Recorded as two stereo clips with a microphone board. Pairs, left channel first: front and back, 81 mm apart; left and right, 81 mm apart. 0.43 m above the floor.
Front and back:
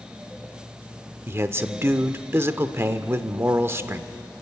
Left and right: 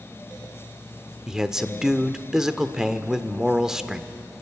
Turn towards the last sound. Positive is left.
turn(degrees=-170)